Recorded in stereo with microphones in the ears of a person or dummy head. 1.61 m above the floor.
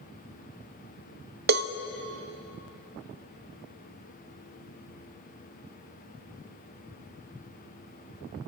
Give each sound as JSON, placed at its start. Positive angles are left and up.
{"t": 1.5, "sound": "a cowbell", "side_deg": -50, "distance_m": 0.5}